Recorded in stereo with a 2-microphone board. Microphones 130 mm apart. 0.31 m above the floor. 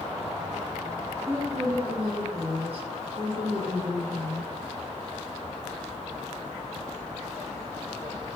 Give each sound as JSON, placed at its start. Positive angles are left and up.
{"t": 1.3, "sound": "a woman speaking", "side_deg": -50, "distance_m": 1.9}